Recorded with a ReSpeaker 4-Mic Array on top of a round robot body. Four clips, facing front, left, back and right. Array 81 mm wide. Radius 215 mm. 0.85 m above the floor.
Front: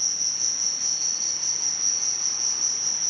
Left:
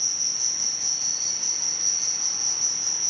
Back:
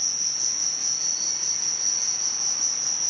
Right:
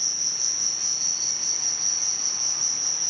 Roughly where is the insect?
Behind right.